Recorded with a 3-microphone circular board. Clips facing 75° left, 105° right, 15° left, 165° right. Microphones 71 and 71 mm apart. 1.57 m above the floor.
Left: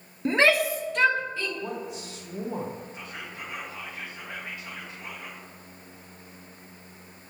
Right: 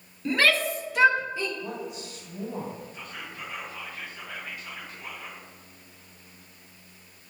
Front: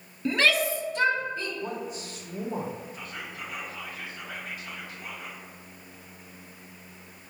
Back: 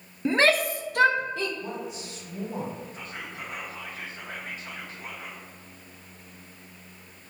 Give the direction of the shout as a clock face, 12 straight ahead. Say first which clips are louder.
Left 2 dB, back 2 dB; 8 o'clock.